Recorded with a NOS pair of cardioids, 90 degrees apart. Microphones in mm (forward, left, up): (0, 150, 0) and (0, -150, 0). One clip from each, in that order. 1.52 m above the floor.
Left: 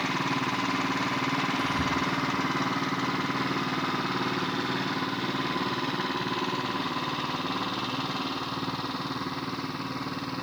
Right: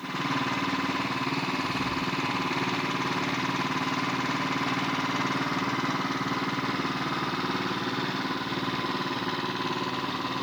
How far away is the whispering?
About 0.5 m.